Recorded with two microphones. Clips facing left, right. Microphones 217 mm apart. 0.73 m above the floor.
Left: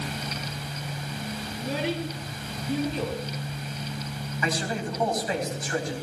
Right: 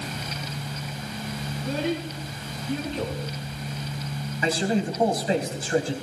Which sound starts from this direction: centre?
A child speaking, at 1.5 s.